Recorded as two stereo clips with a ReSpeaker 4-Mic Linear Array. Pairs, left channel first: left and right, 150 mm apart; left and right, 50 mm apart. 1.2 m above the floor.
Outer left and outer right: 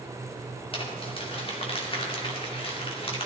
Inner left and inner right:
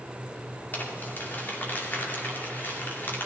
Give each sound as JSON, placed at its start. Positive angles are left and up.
{"t": 0.7, "sound": "crumpling", "side_deg": 40, "distance_m": 2.0}